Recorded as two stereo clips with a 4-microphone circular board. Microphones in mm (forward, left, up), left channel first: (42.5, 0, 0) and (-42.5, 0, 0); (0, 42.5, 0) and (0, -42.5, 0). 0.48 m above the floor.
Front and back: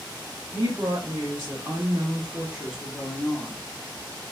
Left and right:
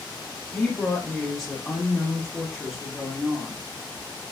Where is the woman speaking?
165° left, 1.7 m; by 3.6 s 15° right, 1.3 m.